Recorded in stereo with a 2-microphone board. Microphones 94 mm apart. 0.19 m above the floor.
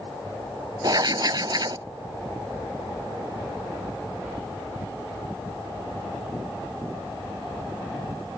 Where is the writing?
45° right (ahead or behind).